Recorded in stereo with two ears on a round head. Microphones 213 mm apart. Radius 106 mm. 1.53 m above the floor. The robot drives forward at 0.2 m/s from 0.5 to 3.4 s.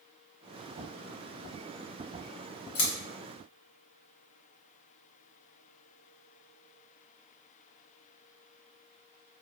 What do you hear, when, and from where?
2.8 s scissors: 65° left (ahead or behind), 1.5 m